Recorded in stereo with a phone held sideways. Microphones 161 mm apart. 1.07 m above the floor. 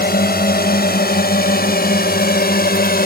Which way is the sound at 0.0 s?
70° left (ahead or behind).